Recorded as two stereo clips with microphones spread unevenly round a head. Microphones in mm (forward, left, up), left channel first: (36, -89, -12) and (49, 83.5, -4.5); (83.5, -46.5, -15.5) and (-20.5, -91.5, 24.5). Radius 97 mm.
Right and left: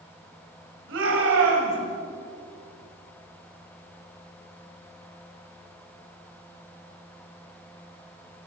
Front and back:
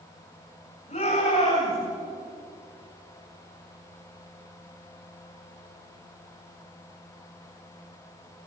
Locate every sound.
0.9 s a shout: 85° left, 8.5 m